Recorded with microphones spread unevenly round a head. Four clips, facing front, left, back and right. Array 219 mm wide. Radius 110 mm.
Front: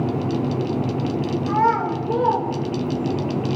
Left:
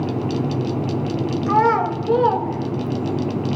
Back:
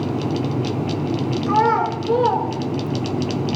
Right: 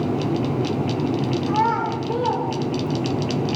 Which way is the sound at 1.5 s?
120° left.